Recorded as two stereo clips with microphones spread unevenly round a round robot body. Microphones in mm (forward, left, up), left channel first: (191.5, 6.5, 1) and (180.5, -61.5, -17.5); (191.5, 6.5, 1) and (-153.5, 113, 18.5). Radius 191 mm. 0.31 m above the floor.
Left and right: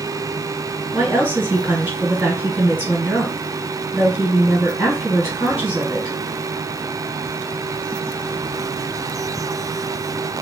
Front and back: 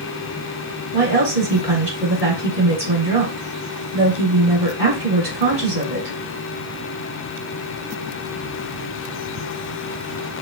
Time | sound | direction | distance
0.9 | a woman speaking | 135° right | 1.7 m